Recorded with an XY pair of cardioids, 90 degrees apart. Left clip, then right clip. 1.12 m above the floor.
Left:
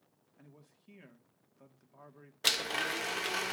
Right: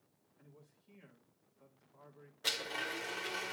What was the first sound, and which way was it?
A man speaking, 65° left.